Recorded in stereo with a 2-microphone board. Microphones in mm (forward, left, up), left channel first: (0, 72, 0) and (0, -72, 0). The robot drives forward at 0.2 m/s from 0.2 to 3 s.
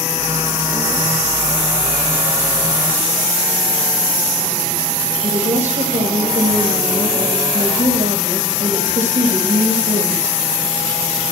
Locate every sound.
5.2 s a woman speaking: 55° right (ahead or behind), 3.5 m